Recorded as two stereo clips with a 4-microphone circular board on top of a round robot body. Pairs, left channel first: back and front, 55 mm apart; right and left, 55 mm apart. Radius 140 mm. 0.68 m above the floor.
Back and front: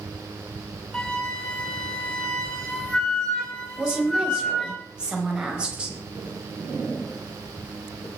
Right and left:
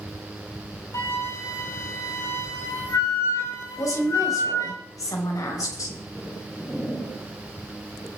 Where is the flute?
105° right, 3.5 m.